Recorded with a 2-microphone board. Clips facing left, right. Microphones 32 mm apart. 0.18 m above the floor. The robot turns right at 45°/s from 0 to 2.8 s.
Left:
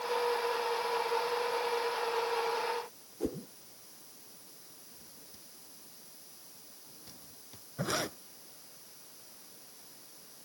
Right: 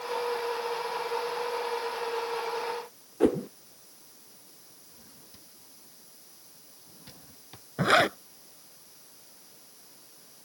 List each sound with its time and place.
3.2 s a whoosh: 65° right (ahead or behind)
4.9 s a drawer: 35° right (ahead or behind)
7.8 s a zipper: 55° right (ahead or behind)